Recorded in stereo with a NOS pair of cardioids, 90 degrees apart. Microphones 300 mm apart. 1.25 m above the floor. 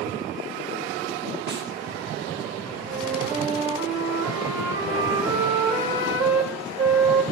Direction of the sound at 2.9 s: 35° right.